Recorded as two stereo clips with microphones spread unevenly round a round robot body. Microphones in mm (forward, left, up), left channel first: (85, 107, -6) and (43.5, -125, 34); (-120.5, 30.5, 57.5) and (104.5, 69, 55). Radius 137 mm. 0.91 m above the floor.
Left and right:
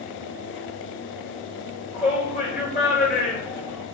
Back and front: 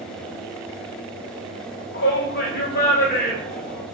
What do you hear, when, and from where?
1.9 s a shout: 145° left, 3.5 m; by 3.9 s 135° left, 4.5 m